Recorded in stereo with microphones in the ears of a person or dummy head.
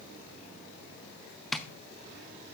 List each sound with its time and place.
1.5 s tapping: 10° left (ahead or behind), 0.6 m